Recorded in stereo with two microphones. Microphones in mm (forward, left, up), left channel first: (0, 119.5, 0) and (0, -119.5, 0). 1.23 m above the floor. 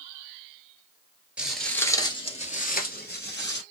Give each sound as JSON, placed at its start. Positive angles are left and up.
{"t": 1.4, "sound": "footsteps", "side_deg": -5, "distance_m": 1.3}